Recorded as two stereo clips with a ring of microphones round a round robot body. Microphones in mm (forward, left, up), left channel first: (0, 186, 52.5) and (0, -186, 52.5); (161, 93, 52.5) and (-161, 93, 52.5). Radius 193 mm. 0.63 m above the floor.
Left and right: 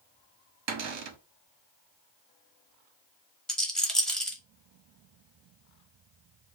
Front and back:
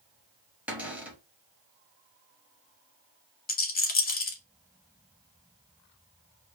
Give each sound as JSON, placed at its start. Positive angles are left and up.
{"t": 0.7, "sound": "a cupboard door", "azimuth_deg": -95, "distance_m": 0.9}
{"t": 3.5, "sound": "a rattle", "azimuth_deg": 5, "distance_m": 1.2}